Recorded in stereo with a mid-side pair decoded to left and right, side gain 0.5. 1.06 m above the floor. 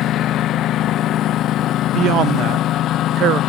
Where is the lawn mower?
65° left.